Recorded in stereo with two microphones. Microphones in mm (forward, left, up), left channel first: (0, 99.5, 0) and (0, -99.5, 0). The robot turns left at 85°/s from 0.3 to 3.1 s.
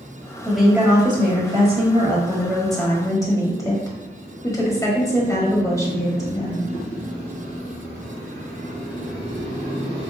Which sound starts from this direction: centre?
A woman speaking, at 0.5 s.